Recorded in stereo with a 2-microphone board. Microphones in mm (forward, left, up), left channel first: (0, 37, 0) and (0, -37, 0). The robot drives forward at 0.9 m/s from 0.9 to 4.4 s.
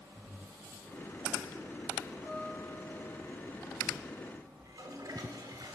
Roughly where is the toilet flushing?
Right.